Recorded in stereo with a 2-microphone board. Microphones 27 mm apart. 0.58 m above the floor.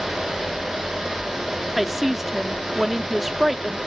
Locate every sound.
1.8 s a woman speaking: 5° right (ahead or behind)